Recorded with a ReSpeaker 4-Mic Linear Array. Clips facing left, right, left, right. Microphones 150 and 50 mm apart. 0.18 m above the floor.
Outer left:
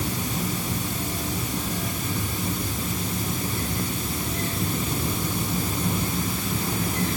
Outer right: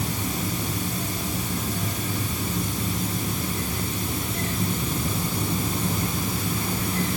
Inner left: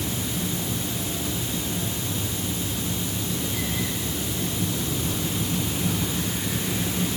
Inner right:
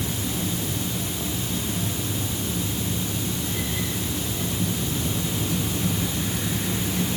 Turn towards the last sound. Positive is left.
No sound to turn to.